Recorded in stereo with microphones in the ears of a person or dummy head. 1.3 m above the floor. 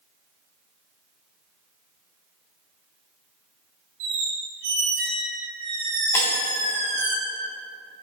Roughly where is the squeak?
Right.